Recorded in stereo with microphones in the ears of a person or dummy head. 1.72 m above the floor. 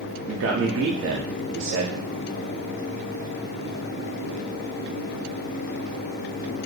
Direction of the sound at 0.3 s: 70° right (ahead or behind).